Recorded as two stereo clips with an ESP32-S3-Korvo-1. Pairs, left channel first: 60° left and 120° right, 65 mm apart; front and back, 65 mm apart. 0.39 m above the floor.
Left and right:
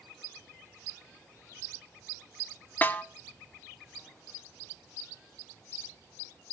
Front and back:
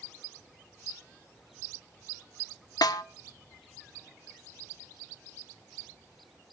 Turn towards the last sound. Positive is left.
turn(degrees=0)